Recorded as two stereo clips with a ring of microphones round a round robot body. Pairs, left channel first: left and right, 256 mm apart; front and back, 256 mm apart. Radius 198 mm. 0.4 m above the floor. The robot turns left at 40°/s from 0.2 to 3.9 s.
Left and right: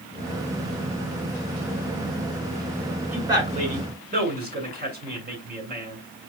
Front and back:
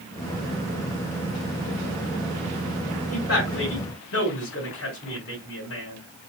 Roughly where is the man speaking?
Ahead.